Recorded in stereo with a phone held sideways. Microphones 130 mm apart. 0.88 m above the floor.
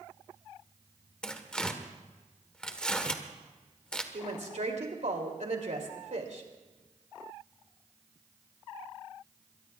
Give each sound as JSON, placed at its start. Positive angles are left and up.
{"t": 1.2, "sound": "tearing paper", "side_deg": 5, "distance_m": 1.2}
{"t": 4.1, "sound": "a woman speaking", "side_deg": -65, "distance_m": 3.0}